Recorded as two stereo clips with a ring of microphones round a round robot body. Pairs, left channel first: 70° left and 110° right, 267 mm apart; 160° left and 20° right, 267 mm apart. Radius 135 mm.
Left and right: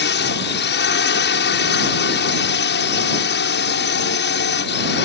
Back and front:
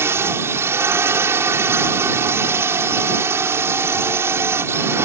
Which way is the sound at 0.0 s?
55° left.